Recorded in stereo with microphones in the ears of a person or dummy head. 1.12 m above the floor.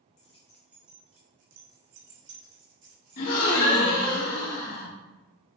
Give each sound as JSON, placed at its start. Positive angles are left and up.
{"t": 0.2, "sound": "keys jangling", "side_deg": 40, "distance_m": 0.7}
{"t": 3.2, "sound": "a gasp", "side_deg": 55, "distance_m": 1.1}